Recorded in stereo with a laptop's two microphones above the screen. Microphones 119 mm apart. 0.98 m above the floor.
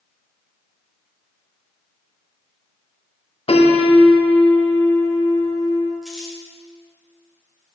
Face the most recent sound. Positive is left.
turn(degrees=5)  # may be behind; listen again after turning